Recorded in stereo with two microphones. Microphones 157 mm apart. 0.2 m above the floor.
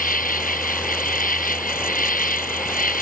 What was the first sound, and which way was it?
An insect, 60° left (ahead or behind).